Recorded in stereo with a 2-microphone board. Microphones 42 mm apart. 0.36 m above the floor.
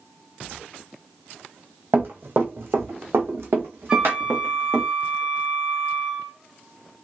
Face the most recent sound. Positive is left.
turn(degrees=-20)  # may be behind; listen again after turning